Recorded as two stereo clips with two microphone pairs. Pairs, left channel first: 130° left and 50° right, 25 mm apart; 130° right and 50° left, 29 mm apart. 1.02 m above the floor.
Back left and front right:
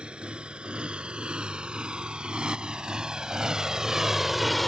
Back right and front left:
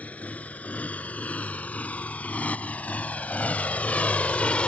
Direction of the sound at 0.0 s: 95° right.